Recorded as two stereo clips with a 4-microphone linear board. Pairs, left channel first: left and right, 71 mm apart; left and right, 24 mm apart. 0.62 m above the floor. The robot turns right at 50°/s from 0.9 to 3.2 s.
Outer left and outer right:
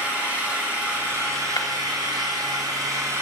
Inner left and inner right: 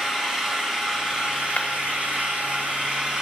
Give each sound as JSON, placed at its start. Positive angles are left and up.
{"t": 0.0, "sound": "an engine running", "azimuth_deg": -155, "distance_m": 3.0}
{"t": 1.6, "sound": "breaking glass", "side_deg": 60, "distance_m": 1.0}